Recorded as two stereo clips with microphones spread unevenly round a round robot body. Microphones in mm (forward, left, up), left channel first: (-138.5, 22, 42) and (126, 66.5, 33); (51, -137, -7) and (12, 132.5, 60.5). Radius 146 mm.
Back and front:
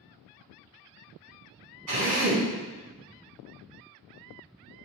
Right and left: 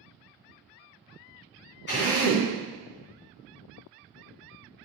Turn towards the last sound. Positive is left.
turn(degrees=-30)